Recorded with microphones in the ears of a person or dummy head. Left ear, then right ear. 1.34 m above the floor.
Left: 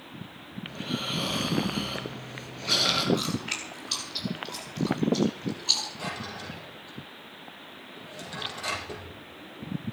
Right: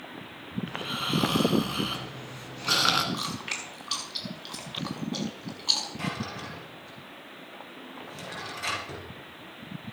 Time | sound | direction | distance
0.7 | snoring | 70° right (ahead or behind) | 3.5 m
3.1 | chewing | 35° right (ahead or behind) | 5.5 m
6.0 | a drawer | 65° right (ahead or behind) | 7 m